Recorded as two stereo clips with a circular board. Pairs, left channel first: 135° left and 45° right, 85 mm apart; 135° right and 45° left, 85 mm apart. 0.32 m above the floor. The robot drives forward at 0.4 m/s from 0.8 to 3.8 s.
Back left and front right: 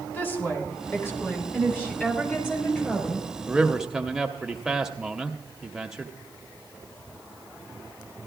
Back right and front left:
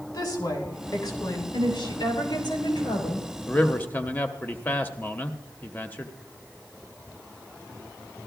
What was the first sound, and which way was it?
A woman speaking, 165° right.